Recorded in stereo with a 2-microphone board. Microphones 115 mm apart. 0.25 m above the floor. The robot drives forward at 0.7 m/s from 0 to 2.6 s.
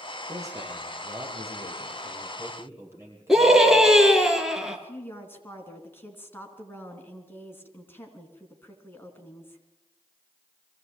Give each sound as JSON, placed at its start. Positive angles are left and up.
{"t": 0.3, "sound": "a man speaking", "side_deg": -30, "distance_m": 6.0}
{"t": 3.3, "sound": "a scream", "side_deg": -5, "distance_m": 3.5}
{"t": 4.7, "sound": "a woman speaking", "side_deg": 20, "distance_m": 3.5}